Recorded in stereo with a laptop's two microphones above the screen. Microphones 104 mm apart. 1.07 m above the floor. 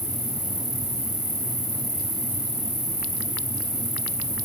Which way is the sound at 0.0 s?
70° right (ahead or behind).